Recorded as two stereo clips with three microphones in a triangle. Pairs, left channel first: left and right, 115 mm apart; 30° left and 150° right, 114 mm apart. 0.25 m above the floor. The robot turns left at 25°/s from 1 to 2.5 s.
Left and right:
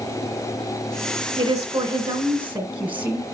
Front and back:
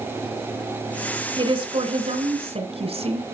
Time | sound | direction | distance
1.4 | a woman speaking | 135° right | 1.9 m